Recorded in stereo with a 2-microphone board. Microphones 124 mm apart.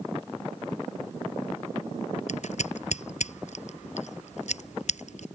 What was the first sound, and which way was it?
Scissors, 70° left (ahead or behind).